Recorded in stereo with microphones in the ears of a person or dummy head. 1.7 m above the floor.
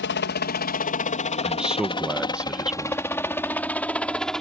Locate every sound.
0.0 s a helicopter: 50° left (ahead or behind); by 4.4 s centre (ahead or behind)
1.4 s a man speaking: 5° right (ahead or behind)